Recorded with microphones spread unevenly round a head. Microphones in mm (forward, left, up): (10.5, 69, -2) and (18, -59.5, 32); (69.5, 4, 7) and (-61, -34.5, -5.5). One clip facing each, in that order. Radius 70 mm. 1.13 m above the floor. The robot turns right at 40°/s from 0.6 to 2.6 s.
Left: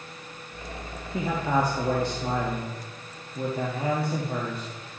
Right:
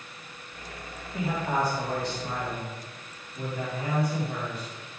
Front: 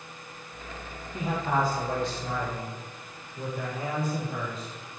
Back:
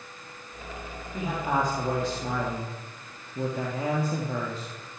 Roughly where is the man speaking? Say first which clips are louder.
Left 3 dB, even; left.